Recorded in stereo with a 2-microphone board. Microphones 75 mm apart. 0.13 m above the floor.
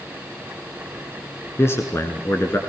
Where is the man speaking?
35° left (ahead or behind), 1.6 m.